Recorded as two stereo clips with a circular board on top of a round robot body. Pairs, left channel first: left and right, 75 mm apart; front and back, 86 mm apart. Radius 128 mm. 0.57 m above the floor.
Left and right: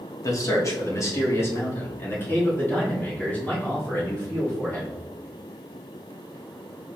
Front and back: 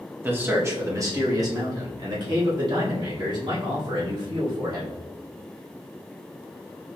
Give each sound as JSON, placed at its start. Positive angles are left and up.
{"t": 0.2, "sound": "a man speaking", "azimuth_deg": 115, "distance_m": 1.3}